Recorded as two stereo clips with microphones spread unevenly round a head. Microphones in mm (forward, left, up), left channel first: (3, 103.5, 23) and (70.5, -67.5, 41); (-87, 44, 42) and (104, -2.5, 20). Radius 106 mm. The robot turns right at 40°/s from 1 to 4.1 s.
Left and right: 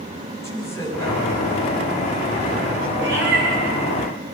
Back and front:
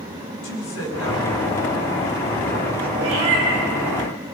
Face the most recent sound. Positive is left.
turn(degrees=0)